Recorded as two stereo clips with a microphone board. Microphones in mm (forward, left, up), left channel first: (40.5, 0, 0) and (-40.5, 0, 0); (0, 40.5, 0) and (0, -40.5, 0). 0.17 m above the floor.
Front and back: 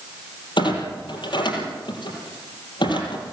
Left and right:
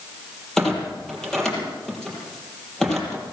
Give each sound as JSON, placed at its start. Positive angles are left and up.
{"t": 0.6, "sound": "a clunk", "azimuth_deg": 5, "distance_m": 5.0}